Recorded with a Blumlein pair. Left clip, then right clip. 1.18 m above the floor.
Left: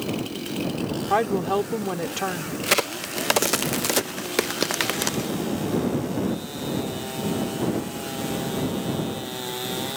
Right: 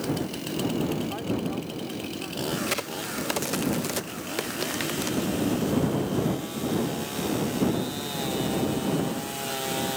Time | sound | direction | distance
1.1 | a woman speaking | 40° left | ?
2.6 | a crack | 65° left | ?